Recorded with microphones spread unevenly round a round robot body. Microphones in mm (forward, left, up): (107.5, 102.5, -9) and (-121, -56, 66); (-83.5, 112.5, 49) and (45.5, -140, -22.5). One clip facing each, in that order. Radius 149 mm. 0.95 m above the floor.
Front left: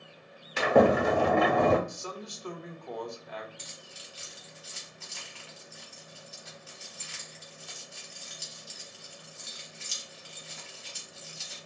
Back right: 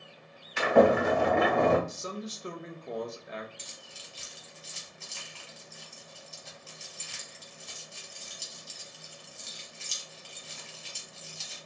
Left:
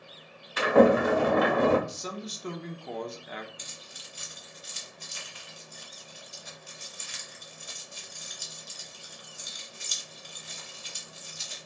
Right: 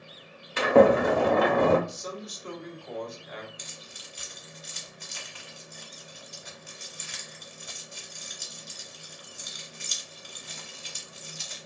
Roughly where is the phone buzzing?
No phone buzzing in this recording.